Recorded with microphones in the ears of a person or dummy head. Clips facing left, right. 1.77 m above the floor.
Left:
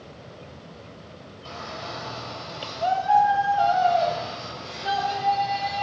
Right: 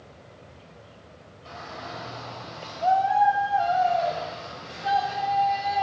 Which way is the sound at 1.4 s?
55° left (ahead or behind).